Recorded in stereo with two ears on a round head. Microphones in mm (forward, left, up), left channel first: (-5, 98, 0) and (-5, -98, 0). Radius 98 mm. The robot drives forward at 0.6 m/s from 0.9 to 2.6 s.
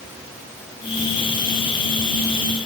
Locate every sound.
Only background noise.